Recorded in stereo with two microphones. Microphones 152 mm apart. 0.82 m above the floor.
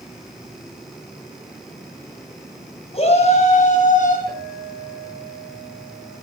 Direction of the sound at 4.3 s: 90° right.